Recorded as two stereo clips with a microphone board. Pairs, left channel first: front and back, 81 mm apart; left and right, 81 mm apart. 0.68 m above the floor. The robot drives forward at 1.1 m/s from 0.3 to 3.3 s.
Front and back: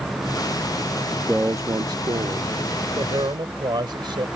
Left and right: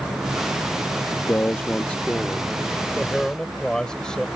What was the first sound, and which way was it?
A man speaking, 80° left.